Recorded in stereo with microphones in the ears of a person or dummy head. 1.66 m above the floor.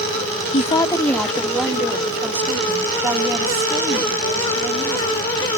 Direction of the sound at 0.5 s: 35° left (ahead or behind).